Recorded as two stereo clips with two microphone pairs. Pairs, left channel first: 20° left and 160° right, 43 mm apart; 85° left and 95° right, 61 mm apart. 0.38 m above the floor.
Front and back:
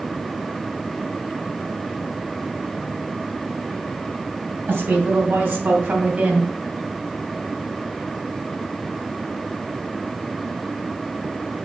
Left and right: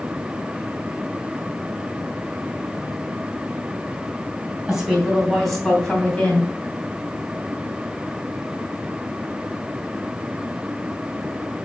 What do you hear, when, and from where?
4.7 s a woman speaking: straight behind, 3.5 m; by 6.5 s 150° left, 3 m